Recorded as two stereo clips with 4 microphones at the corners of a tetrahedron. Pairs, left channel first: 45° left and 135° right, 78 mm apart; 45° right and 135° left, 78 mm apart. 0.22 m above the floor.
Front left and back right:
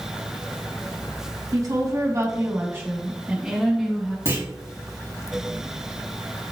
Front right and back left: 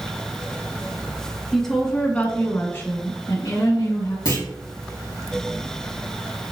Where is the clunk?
90° right, 3.5 m.